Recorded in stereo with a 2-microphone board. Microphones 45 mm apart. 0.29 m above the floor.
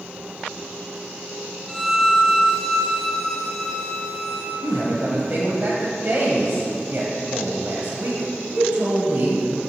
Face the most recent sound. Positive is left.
turn(degrees=-45)  # may be behind; listen again after turning